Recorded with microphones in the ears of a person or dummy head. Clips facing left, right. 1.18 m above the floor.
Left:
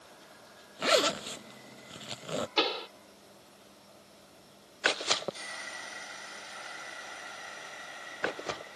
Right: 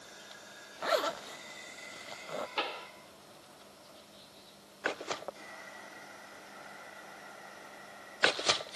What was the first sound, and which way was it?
A zipper, 45° left (ahead or behind).